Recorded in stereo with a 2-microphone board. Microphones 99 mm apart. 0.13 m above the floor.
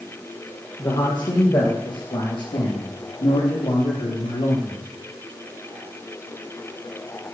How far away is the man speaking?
About 5 m.